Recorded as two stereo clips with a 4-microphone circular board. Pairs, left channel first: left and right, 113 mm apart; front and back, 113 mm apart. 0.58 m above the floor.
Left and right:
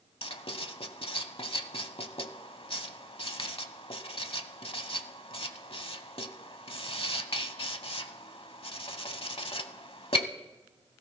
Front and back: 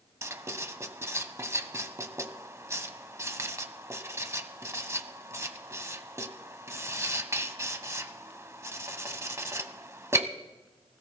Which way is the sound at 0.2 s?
120° left.